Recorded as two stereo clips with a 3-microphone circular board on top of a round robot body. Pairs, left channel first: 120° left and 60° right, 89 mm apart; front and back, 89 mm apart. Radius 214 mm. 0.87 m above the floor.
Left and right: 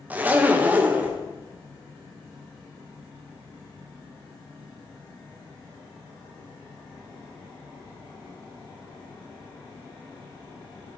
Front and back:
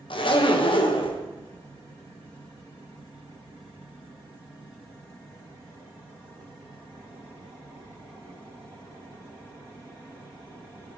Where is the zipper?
10° left, 1.1 m.